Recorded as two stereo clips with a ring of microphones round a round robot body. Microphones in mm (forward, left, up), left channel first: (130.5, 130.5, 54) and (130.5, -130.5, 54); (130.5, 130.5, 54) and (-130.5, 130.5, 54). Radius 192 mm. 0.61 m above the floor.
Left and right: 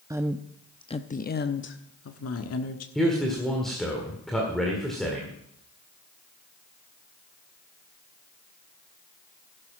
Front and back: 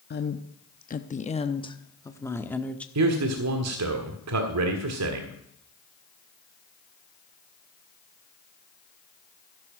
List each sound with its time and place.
0.1 s a woman speaking: 20° right, 0.9 m; by 2.9 s 85° left, 1.5 m
3.0 s a man speaking: straight behind, 1.6 m